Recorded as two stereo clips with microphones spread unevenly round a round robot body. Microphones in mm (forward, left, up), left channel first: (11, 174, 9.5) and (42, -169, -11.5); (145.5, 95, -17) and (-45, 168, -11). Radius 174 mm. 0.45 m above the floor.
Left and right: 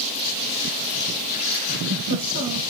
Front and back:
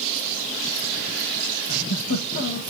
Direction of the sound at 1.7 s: 45° right.